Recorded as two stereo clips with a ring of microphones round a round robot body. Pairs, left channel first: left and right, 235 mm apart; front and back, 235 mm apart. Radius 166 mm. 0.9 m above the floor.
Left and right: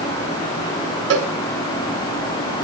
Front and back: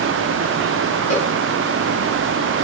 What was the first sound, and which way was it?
A cowbell, 70° right.